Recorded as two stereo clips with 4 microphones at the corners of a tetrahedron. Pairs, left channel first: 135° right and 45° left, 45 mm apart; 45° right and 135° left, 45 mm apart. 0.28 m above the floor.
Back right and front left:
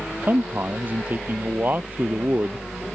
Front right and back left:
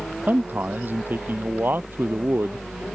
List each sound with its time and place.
0.3 s a man speaking: 90° left; by 2.7 s 95° left